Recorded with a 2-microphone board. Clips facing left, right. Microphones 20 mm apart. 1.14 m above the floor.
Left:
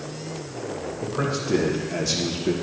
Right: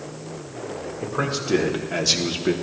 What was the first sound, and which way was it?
A man speaking, 20° right (ahead or behind).